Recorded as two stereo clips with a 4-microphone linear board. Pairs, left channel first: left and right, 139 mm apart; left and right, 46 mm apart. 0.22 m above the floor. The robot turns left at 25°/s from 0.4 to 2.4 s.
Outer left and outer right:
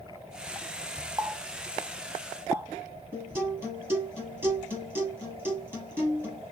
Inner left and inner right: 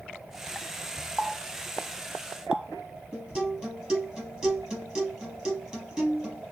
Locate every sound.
1.2 s a running tap: 25° right (ahead or behind), 0.7 m; by 2.7 s 15° right (ahead or behind), 0.7 m
3.1 s a guitar: 15° right (ahead or behind), 3 m